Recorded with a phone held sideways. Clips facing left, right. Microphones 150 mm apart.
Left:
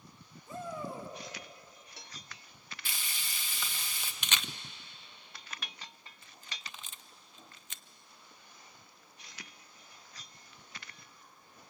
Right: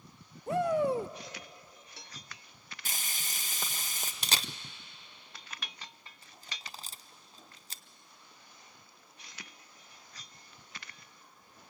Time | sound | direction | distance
0.5 | a shout | 75° right (ahead or behind) | 0.8 m
2.9 | frying | 45° right (ahead or behind) | 1.3 m
4.2 | a camera shutter | 35° right (ahead or behind) | 0.6 m